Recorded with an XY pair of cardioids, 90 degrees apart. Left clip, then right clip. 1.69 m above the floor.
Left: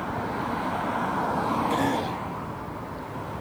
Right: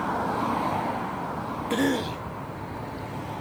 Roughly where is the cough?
Ahead right.